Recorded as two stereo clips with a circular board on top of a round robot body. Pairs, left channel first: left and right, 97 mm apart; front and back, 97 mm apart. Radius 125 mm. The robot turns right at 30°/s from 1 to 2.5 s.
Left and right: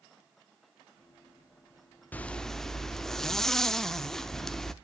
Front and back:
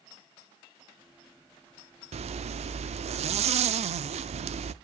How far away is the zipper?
About 0.5 m.